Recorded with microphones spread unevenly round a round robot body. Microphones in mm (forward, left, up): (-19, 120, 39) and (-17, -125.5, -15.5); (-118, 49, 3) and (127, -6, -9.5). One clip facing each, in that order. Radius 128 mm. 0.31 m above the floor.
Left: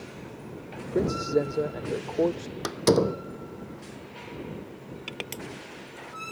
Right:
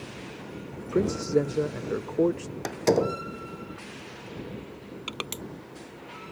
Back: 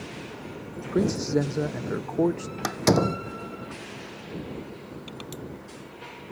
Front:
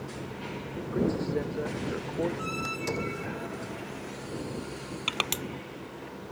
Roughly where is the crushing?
Ahead.